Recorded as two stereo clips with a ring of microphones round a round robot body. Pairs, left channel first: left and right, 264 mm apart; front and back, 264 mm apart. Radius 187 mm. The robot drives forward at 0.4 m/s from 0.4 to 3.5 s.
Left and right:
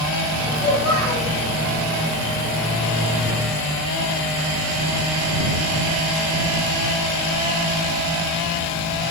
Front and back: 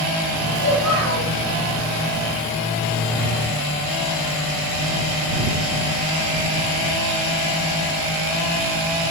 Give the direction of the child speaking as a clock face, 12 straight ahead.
7 o'clock.